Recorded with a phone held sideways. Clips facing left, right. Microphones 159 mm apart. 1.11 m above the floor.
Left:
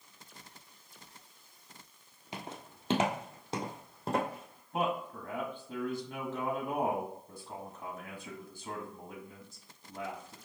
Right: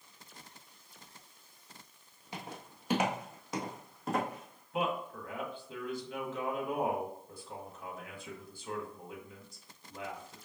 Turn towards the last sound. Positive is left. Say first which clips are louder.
# left 1 dB
turn(degrees=45)  # may be behind; listen again after turning